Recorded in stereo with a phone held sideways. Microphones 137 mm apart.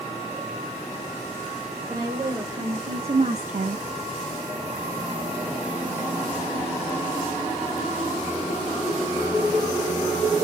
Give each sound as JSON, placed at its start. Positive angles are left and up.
{"t": 1.9, "sound": "a woman speaking", "side_deg": -35, "distance_m": 3.0}